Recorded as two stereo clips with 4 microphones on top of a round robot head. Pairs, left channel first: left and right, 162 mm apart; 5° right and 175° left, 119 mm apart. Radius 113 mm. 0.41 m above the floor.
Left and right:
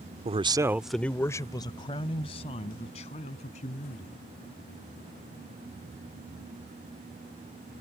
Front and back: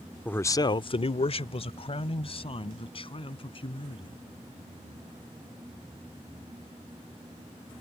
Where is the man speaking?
80° right; by 4.2 s 35° left.